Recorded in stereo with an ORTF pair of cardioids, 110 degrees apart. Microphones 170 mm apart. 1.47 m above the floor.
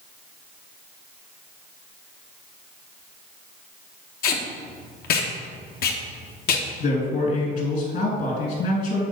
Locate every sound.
4.2 s tape being pulled: 60° left, 1.4 m
6.8 s a man speaking: 55° left, 3 m